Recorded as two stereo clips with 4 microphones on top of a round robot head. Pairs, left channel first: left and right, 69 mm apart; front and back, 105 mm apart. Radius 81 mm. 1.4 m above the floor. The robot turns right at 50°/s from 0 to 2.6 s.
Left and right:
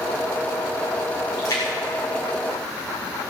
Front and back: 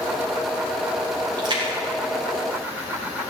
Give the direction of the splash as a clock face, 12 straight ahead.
8 o'clock.